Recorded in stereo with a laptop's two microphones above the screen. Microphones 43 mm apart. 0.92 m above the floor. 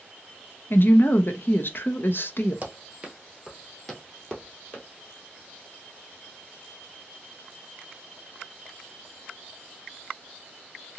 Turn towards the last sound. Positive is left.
turn(degrees=35)  # may be behind; listen again after turning